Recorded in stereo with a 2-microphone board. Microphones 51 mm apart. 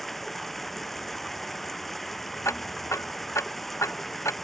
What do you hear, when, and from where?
0.0 s running water: 5° left (ahead or behind)
2.5 s ticking: 65° left (ahead or behind)